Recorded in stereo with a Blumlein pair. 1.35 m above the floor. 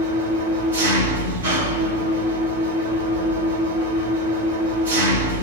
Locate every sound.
0.0 s an engine running: 65° right, 1.1 m